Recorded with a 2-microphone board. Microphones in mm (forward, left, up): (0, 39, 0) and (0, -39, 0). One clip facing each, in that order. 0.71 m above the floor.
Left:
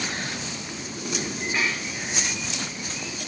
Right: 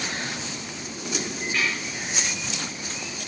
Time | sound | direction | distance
1.5 | dishes clattering | 20° left (ahead or behind) | 9 m